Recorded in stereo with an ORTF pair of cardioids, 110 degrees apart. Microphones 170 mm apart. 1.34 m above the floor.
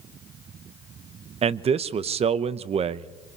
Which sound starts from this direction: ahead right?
A man speaking, at 1.4 s.